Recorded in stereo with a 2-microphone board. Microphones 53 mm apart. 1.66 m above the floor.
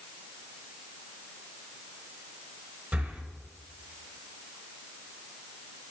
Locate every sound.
2.9 s breathing: 20° right (ahead or behind), 0.9 m